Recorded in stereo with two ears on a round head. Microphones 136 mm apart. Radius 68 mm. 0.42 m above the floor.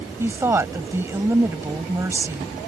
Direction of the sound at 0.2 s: 20° right (ahead or behind).